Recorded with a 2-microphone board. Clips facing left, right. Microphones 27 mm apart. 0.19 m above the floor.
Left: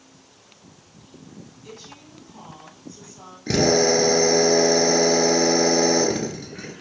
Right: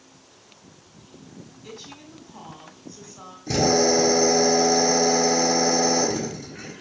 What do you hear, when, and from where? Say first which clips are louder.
1.6 s a woman speaking: right 3 dB; 20° right (ahead or behind), 1.1 m
3.5 s a drill: left 1 dB; 50° left (ahead or behind), 1.2 m